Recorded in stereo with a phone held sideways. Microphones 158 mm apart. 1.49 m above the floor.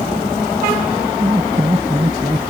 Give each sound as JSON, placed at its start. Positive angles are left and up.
{"t": 1.2, "sound": "laughter", "side_deg": -25}